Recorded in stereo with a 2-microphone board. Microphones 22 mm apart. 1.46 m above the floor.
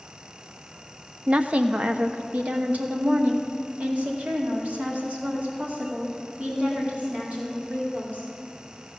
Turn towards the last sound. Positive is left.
turn(degrees=-70)  # may be behind; listen again after turning